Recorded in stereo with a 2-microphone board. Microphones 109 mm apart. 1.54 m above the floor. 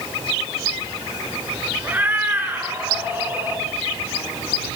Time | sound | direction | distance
1.8 | a cat meowing | 15° right (ahead or behind) | 4.5 m